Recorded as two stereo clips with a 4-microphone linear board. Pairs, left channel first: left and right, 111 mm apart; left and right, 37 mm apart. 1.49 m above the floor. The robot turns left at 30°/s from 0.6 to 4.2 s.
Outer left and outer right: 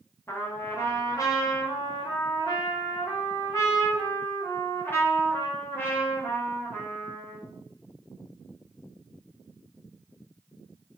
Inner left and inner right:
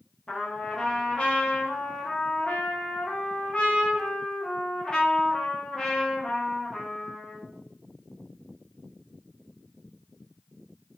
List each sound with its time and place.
0.3 s a trumpet: 140° left, 0.6 m; by 7.4 s 35° left, 0.6 m